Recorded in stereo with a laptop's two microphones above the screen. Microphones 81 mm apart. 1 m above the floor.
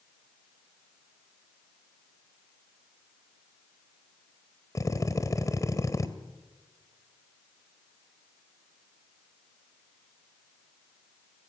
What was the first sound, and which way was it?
A drill, 40° left (ahead or behind).